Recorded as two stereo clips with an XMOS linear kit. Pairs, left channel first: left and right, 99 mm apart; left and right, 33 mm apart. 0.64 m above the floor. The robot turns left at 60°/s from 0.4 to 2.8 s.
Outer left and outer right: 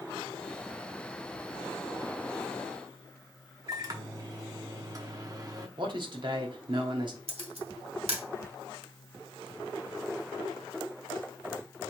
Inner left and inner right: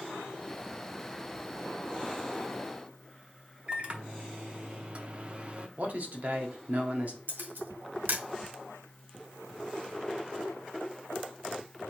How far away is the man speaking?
About 1.2 m.